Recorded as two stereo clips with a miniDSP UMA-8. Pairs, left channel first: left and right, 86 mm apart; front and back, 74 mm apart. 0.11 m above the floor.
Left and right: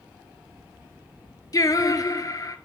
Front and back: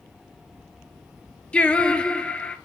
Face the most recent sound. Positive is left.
turn(degrees=70)